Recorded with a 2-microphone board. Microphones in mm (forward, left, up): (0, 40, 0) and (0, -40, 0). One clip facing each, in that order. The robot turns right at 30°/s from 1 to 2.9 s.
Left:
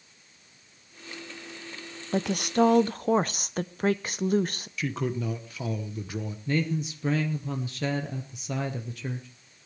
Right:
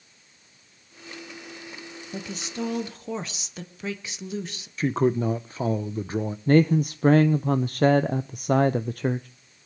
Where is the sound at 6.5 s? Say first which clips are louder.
Right 10 dB; 45° right (ahead or behind), 0.5 m.